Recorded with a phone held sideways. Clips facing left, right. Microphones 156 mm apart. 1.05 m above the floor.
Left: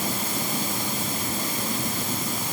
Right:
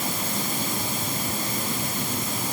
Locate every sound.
Only background noise.